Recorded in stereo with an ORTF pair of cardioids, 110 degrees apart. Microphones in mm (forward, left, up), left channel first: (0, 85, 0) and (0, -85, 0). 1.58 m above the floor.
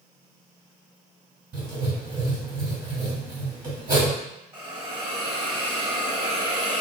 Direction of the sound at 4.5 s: 30° right.